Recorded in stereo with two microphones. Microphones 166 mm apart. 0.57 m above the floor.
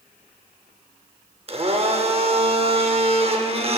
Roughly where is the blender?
Right.